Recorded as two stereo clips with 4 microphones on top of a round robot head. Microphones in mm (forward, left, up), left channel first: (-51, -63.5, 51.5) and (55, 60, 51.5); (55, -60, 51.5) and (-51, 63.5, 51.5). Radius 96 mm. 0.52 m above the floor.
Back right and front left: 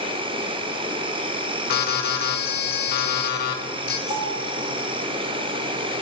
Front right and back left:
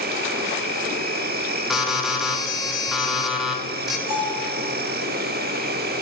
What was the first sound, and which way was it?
An insect, 110° left.